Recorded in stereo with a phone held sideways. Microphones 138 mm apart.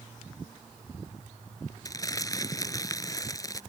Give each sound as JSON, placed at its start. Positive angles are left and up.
{"t": 1.9, "sound": "crumpling", "side_deg": 25}